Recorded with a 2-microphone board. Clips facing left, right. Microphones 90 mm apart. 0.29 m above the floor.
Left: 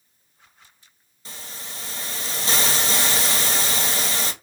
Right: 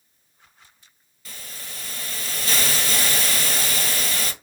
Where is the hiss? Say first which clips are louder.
Left 2 dB; 30° left (ahead or behind), 1.1 m.